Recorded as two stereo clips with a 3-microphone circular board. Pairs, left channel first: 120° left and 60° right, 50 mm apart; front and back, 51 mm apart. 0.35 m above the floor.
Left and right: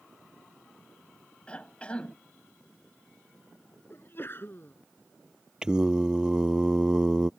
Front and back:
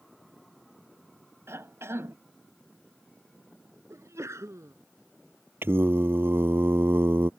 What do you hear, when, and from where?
1.5 s a cough: straight behind
3.9 s a sneeze: 160° left
5.6 s singing: 135° right